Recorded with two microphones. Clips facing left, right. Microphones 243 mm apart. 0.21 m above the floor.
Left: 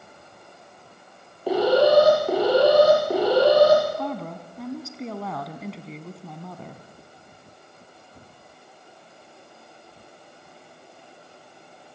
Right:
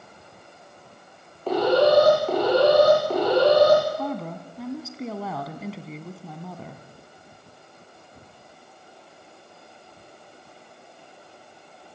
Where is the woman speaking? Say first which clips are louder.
Right 1 dB; centre (ahead or behind), 2 m.